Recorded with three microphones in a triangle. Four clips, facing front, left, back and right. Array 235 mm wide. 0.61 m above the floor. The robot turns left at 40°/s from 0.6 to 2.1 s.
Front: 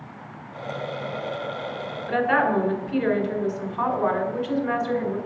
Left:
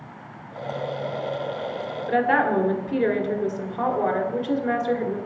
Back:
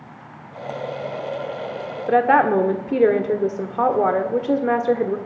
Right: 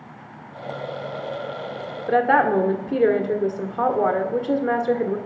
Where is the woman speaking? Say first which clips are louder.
Right 3 dB, back 6 dB; 155° right, 1.5 m.